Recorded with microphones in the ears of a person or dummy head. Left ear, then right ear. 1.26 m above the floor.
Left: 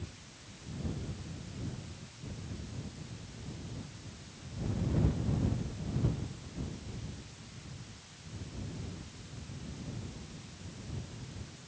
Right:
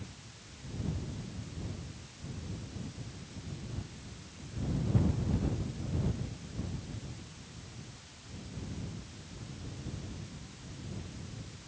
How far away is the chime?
I don't hear a chime.